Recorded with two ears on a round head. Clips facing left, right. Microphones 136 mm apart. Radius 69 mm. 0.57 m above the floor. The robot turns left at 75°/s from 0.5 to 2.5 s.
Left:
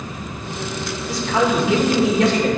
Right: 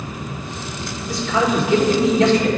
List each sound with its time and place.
1.1 s a man speaking: 155° left, 2 m; by 2.5 s 50° left, 2 m